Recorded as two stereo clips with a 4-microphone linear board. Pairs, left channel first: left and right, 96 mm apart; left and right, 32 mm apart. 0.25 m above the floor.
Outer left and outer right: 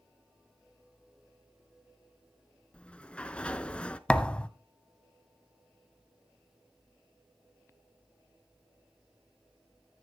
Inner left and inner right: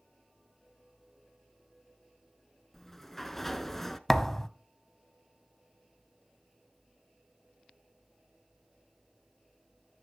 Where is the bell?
I don't hear a bell.